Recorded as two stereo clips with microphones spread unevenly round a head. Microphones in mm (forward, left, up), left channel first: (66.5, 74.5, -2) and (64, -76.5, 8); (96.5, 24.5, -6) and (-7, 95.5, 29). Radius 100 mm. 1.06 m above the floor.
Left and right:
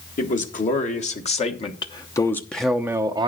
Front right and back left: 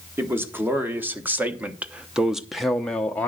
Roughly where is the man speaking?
Ahead left.